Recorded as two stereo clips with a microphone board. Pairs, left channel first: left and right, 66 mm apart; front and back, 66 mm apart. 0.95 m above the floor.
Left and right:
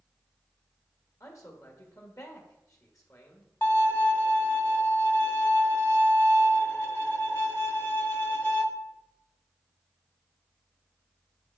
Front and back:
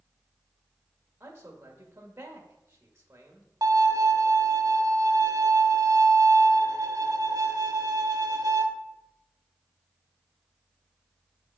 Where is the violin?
145° left, 0.9 m.